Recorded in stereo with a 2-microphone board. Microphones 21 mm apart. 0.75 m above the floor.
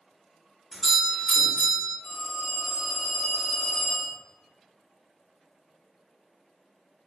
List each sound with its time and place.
0.7 s a doorbell: 10° left (ahead or behind), 1.3 m
2.0 s a phone ringing: 30° left (ahead or behind), 1.2 m